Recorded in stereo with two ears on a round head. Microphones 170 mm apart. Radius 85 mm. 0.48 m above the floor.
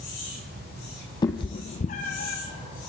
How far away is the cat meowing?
About 1.7 m.